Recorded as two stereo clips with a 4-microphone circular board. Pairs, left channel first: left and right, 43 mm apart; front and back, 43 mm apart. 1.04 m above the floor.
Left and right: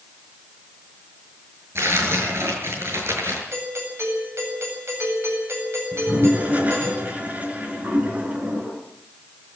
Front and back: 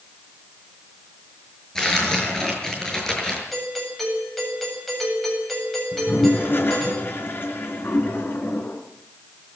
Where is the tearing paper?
75° right, 7 m.